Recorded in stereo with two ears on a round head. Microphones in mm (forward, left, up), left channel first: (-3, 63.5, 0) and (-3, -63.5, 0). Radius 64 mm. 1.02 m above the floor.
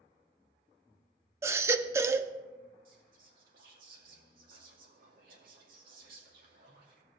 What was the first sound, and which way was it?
A baby crying, 20° right (ahead or behind).